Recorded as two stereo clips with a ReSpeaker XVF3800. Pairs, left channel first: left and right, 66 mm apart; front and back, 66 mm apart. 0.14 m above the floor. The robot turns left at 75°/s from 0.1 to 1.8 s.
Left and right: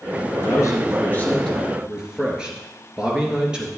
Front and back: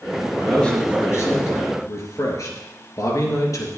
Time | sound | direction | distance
0.4 | a man speaking | 85° left | 2.5 m